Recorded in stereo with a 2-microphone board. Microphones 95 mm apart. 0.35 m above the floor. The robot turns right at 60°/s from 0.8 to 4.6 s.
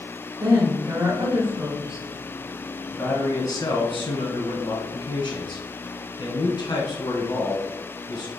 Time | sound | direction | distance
0.4 | a woman speaking | 75° right | 1.6 m
2.9 | a man speaking | 15° left | 1.8 m